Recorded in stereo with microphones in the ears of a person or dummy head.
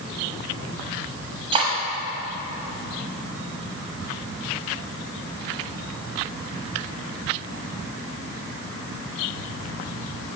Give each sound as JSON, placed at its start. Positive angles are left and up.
{"t": 1.5, "sound": "cutlery clinking", "side_deg": -30, "distance_m": 1.1}